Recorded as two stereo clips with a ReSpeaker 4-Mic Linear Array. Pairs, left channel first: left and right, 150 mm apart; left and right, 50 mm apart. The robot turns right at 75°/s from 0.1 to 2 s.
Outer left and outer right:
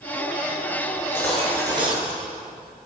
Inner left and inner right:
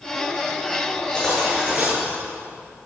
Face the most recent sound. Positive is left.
turn(degrees=-135)